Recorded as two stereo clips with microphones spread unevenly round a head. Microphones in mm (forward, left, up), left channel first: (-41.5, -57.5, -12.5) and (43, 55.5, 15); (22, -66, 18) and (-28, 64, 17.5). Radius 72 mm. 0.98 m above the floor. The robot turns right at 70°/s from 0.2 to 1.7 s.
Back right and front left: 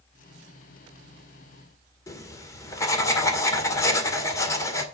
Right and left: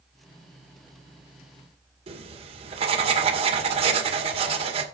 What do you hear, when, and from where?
2.1 s writing: 160° left, 1.9 m